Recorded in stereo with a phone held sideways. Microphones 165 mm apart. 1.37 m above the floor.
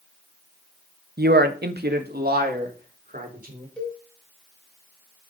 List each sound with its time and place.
1.2 s a man speaking: 70° right (ahead or behind), 1.1 m; by 3.7 s 60° right (ahead or behind), 4.5 m
3.8 s a cowbell: 5° left (ahead or behind), 3.5 m